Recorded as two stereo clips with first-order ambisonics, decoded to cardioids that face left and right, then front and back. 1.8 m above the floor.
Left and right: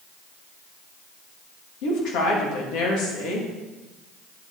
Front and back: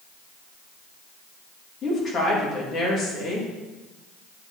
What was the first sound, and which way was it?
A woman speaking, 60° left.